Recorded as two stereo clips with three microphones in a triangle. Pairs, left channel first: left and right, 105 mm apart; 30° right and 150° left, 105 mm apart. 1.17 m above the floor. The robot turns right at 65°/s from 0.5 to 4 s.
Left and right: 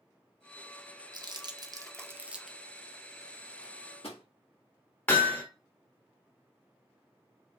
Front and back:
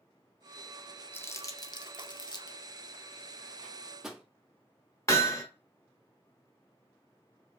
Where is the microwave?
40° left, 1.6 m; by 4.2 s 65° left, 1.6 m.